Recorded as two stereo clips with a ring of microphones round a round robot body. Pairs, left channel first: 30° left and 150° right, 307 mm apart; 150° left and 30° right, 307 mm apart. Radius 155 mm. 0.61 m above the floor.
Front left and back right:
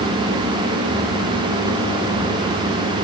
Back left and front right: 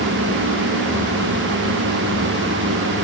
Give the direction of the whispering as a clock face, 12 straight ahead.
No whispering in this recording.